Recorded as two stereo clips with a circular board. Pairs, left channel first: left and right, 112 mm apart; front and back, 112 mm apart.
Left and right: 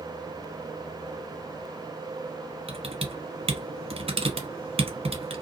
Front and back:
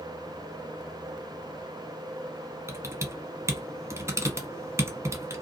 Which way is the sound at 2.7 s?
115° right.